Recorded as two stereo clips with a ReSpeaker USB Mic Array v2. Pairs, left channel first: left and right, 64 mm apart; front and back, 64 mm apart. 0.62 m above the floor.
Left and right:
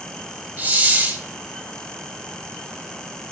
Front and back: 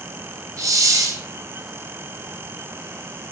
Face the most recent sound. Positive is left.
turn(degrees=-150)